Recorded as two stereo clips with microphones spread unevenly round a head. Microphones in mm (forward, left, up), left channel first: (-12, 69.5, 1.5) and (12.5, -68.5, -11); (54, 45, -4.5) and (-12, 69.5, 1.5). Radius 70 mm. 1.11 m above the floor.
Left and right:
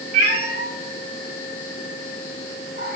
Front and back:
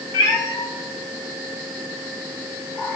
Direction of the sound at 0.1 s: 50° right.